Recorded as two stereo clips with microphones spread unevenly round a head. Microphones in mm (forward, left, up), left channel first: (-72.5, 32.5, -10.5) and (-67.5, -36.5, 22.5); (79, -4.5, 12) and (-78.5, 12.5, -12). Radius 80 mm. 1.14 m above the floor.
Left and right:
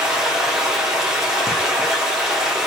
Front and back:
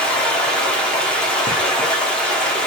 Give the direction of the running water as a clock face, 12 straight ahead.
2 o'clock.